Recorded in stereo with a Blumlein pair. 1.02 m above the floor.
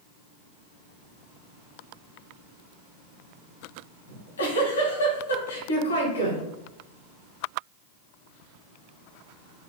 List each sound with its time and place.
4.1 s a giggle: 70° left, 2 m